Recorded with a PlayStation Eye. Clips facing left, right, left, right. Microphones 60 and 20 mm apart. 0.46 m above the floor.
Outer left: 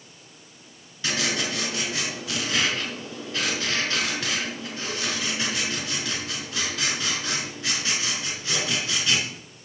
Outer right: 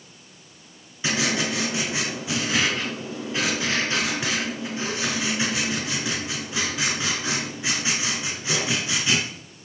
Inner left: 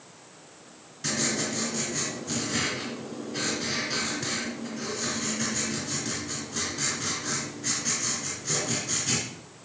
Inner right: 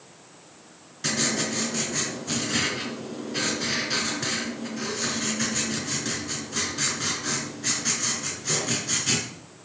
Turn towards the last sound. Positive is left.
turn(degrees=-20)  # may be behind; listen again after turning